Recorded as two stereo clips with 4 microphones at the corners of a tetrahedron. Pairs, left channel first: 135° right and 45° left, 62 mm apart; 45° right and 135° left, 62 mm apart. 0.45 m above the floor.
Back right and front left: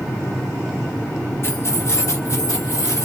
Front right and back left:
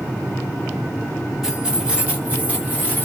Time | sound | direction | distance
1.4 | keys jangling | 150° right | 0.8 m